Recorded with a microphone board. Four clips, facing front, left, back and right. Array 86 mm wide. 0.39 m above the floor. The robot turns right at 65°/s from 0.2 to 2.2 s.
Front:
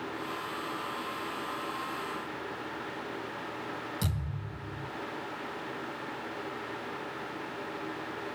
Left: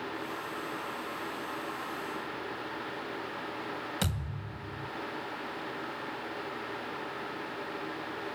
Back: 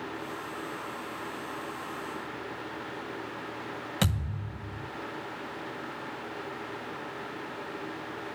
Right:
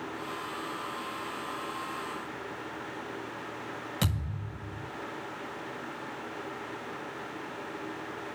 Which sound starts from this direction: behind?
A thud, at 4.0 s.